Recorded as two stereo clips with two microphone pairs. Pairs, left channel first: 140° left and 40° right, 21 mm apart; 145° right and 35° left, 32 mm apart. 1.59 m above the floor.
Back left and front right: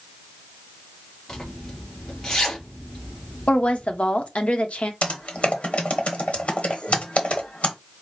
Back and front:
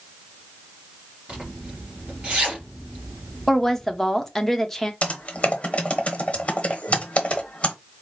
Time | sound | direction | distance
1.3 | a zipper | 85° left | 3 m
3.5 | a woman speaking | 135° left | 0.9 m
5.0 | typing on a keyboard | 160° left | 1.0 m